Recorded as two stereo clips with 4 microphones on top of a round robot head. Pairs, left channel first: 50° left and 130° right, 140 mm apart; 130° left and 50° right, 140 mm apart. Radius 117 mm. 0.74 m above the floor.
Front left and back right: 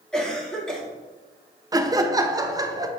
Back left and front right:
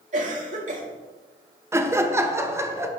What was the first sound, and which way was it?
A cough, 35° right.